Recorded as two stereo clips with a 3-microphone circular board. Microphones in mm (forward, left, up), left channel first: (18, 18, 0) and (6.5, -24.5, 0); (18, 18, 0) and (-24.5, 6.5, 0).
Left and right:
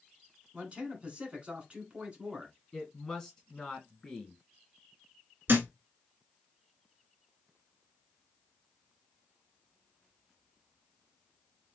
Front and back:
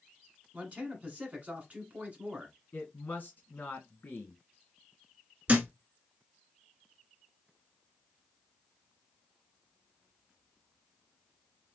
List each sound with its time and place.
0.5 s a man speaking: 145° right, 1.4 m
2.7 s a woman speaking: 5° left, 1.8 m
5.5 s a thud: 115° right, 0.9 m